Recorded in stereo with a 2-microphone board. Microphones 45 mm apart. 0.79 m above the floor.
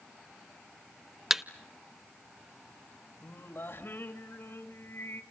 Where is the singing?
60° left (ahead or behind), 2 m.